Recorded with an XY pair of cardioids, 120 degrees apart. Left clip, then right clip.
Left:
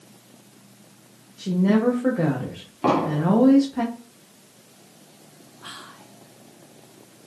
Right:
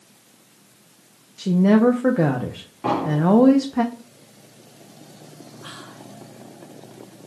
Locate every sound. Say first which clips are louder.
1.4 s a woman speaking: right 4 dB; 35° right, 0.7 m
2.8 s an explosion: left 1 dB; 40° left, 2.0 m
5.6 s whispering: even; 10° left, 0.8 m